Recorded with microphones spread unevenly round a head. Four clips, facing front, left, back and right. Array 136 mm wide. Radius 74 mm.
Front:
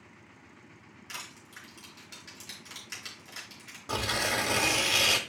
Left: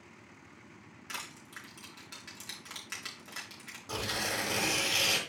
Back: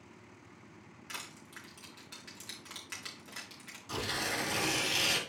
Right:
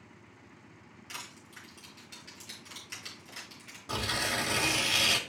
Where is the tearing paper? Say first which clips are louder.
Right 2 dB, front 6 dB; 5° right, 1.5 m.